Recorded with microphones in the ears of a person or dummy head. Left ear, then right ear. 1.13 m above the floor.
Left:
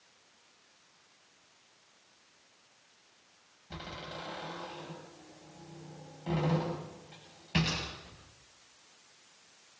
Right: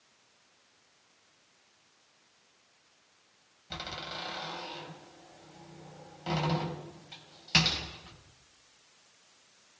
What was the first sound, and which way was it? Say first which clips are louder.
A door slam: right 4 dB; 60° right (ahead or behind).